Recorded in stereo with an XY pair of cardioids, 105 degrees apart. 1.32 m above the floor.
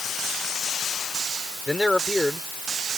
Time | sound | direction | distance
1.7 | a man speaking | 5° left | ?